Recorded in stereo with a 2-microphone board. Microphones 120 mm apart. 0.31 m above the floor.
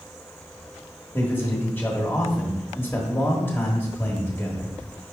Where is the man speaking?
20° left (ahead or behind), 0.9 m.